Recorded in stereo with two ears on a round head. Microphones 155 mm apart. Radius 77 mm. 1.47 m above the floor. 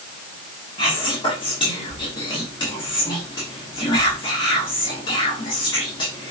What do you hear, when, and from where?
0.8 s whispering: 30° left (ahead or behind), 1.5 m